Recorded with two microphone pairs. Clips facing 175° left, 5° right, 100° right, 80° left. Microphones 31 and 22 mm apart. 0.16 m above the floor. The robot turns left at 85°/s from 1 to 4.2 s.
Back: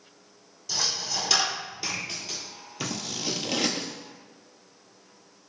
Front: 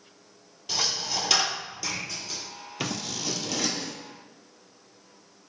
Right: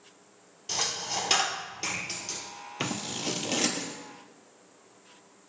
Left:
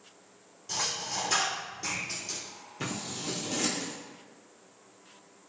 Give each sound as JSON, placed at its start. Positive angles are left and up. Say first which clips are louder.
{"t": 0.7, "sound": "a dropped coin", "louder": "front 1 dB, right 2 dB", "azimuth_deg": -55, "distance_m": 1.1}
{"t": 2.8, "sound": "scissors", "louder": "even, right 3 dB", "azimuth_deg": -75, "distance_m": 0.5}